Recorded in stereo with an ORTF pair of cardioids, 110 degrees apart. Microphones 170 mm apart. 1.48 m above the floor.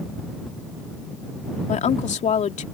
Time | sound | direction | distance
1.7 | a woman speaking | 45° left | ?